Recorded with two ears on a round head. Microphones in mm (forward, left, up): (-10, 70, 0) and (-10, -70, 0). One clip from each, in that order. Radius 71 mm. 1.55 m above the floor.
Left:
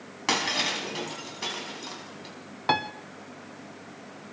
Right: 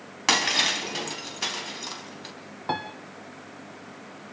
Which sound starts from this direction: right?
Breaking glass, at 0.3 s.